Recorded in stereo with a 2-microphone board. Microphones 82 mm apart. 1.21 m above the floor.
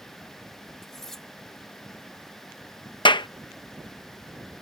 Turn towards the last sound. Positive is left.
turn(degrees=65)  # may be behind; listen again after turning